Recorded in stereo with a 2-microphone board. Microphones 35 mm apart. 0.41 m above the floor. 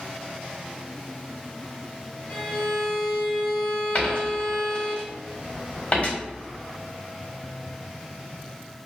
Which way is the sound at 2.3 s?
35° left (ahead or behind).